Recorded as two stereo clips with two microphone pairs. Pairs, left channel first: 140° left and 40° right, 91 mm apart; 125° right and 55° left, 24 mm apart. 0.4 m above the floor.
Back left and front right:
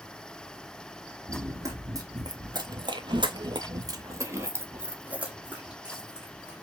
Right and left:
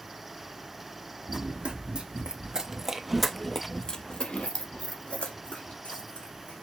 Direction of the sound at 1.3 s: 20° left.